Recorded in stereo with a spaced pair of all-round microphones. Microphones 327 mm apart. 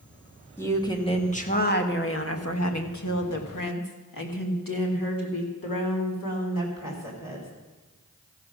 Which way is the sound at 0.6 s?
10° left (ahead or behind).